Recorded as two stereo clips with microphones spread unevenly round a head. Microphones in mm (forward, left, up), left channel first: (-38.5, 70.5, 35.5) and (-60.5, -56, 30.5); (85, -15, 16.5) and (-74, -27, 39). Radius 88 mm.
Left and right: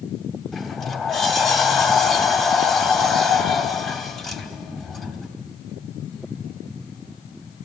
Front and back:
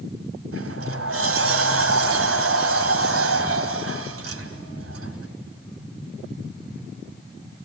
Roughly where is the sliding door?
Behind.